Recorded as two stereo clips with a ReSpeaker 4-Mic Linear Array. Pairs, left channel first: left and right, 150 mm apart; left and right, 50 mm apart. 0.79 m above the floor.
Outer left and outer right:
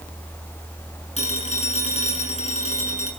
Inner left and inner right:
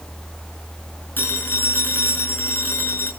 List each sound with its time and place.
1.2 s a phone ringing: 50° left (ahead or behind), 6.5 m